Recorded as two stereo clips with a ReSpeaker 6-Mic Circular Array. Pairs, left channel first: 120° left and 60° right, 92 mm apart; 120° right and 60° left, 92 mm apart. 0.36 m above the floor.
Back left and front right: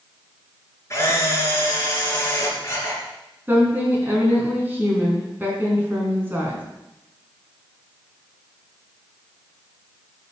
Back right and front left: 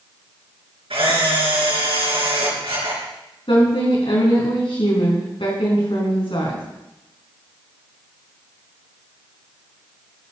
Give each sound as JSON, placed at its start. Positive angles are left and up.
{"t": 0.9, "sound": "a camera shutter", "azimuth_deg": 65, "distance_m": 3.5}
{"t": 3.5, "sound": "a woman speaking", "azimuth_deg": -125, "distance_m": 4.0}